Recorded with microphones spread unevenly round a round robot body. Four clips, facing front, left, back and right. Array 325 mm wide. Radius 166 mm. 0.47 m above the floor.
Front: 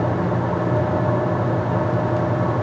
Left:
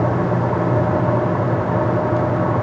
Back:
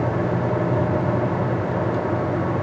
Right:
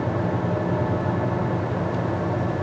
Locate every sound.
Only background noise.